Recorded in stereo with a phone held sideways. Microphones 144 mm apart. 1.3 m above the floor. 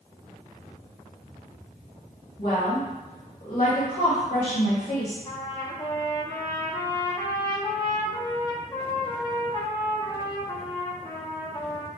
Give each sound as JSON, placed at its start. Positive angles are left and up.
{"t": 2.4, "sound": "a woman speaking", "side_deg": 60, "distance_m": 1.2}
{"t": 5.2, "sound": "a trumpet", "side_deg": 25, "distance_m": 0.8}